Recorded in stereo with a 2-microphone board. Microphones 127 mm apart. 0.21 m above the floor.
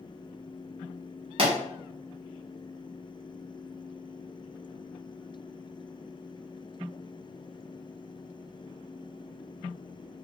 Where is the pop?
50° right (ahead or behind), 1.0 m.